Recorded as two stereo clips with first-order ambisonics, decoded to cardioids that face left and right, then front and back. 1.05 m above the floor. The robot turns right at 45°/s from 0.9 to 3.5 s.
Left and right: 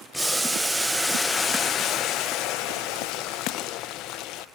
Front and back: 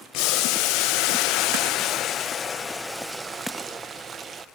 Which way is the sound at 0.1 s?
Straight ahead.